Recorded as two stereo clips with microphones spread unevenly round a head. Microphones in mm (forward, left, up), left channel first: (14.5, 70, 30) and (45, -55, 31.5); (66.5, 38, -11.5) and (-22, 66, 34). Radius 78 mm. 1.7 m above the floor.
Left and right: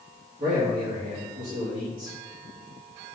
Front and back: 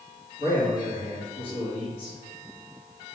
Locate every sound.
0.4 s a man speaking: 60° right, 1.8 m